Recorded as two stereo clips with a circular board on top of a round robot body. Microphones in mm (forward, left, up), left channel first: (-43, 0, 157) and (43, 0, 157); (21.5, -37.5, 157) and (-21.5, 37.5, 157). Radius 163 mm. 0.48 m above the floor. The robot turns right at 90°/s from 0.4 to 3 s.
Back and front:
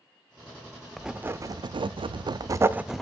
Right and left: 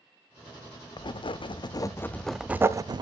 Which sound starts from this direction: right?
Writing, at 1.0 s.